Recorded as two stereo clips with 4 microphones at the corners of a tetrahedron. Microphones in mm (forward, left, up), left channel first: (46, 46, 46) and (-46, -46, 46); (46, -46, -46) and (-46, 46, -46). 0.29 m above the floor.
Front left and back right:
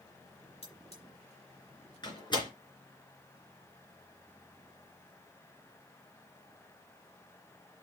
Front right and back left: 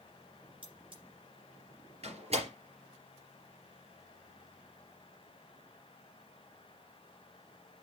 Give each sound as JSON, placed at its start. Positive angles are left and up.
{"t": 0.6, "sound": "cutlery clinking", "azimuth_deg": 85, "distance_m": 3.5}
{"t": 2.0, "sound": "a door slam", "azimuth_deg": 100, "distance_m": 3.5}